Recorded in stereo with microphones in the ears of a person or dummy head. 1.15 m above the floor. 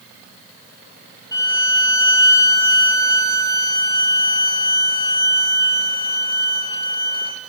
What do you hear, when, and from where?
1.3 s a violin: 20° left (ahead or behind), 1.6 m